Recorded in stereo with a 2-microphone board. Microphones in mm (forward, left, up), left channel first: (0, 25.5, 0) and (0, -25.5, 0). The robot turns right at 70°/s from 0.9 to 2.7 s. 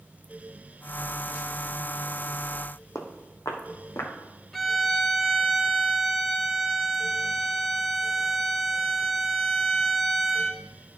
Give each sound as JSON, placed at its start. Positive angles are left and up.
{"t": 3.0, "sound": "footsteps", "side_deg": 65, "distance_m": 1.1}
{"t": 4.5, "sound": "a violin", "side_deg": 5, "distance_m": 0.7}